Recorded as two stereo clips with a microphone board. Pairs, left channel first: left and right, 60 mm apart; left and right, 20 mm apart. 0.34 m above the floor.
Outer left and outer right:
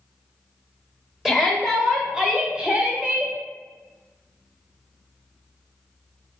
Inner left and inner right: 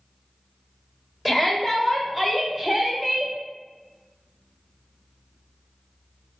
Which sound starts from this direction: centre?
A shout, at 1.2 s.